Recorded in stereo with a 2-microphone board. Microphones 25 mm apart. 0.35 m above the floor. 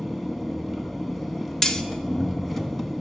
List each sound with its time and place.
0.0 s an engine running: 5° left (ahead or behind), 0.8 m
1.6 s cutlery clinking: 25° left (ahead or behind), 0.5 m